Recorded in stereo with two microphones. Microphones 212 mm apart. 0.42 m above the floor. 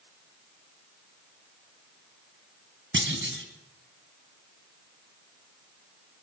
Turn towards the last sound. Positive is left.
turn(degrees=-65)  # may be behind; listen again after turning